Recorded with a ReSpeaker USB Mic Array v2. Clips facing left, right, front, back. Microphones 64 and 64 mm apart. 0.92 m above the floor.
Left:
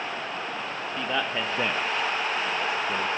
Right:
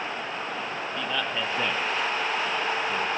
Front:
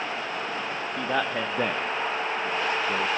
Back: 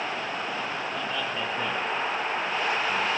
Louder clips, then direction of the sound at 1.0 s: Left 2 dB, front 8 dB; 25° left.